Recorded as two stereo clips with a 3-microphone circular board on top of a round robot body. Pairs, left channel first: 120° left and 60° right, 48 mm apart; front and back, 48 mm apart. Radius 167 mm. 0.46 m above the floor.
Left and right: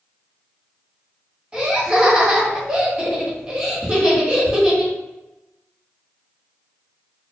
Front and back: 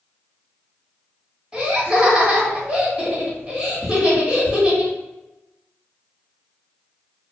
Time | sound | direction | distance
1.5 | laughter | 125° right | 1.5 m